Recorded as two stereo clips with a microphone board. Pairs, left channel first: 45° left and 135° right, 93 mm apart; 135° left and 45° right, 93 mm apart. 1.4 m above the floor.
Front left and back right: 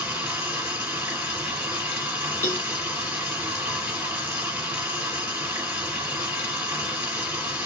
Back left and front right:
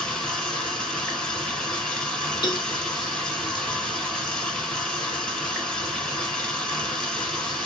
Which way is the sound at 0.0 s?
160° right.